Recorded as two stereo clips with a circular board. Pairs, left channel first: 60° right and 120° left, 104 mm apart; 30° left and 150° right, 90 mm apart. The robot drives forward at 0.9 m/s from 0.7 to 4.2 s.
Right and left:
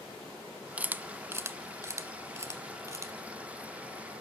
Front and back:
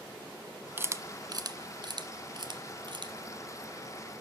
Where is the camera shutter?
Straight behind, 0.5 m.